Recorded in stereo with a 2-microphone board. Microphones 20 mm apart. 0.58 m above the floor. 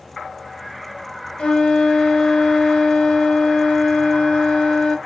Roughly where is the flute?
Left.